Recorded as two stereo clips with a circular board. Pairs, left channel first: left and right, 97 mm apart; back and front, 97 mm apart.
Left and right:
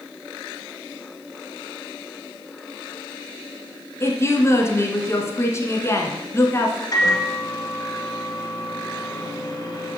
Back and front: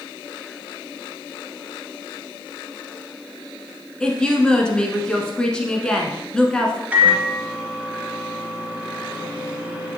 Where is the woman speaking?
110° left, 1.2 m.